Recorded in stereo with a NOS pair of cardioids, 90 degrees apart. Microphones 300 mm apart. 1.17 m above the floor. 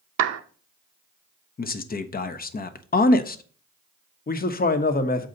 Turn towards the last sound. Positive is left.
turn(degrees=30)